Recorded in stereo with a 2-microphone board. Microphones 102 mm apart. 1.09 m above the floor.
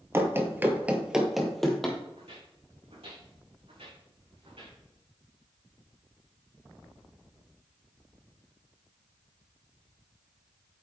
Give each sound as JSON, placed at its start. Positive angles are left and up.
{"t": 0.1, "sound": "running footsteps", "side_deg": -25, "distance_m": 1.3}
{"t": 2.2, "sound": "footsteps", "side_deg": -70, "distance_m": 3.5}